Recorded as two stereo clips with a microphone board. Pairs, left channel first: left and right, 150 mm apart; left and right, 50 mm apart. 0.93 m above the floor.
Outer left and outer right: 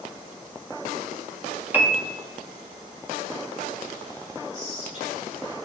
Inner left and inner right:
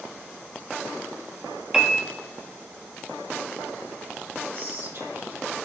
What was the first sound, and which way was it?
A piano, 10° right (ahead or behind).